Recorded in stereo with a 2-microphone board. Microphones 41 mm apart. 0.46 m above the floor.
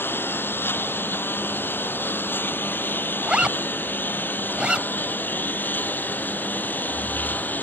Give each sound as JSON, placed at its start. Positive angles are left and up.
{"t": 0.0, "sound": "a lawn mower", "side_deg": 65}
{"t": 3.2, "sound": "a zipper", "side_deg": -25}